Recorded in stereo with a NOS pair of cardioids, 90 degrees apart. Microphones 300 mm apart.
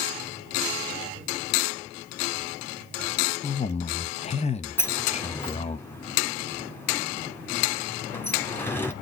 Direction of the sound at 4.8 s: 5° left.